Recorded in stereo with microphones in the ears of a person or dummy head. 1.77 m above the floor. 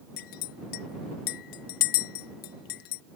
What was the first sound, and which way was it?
A clink, 45° left (ahead or behind).